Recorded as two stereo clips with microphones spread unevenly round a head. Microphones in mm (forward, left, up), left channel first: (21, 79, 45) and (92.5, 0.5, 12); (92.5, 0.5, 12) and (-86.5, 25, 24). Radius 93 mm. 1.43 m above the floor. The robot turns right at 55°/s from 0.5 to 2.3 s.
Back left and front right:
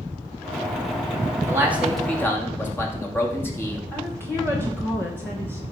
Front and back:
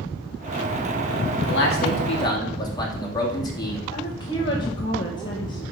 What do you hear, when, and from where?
1.5 s a man speaking: 15° left, 2.5 m; by 3.8 s 65° left, 2.5 m
3.9 s a woman speaking: 60° left, 1.7 m